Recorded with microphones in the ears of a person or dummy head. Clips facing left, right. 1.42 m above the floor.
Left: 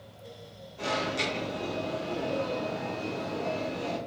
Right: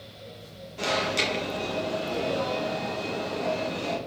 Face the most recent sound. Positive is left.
turn(degrees=-65)  # may be behind; listen again after turning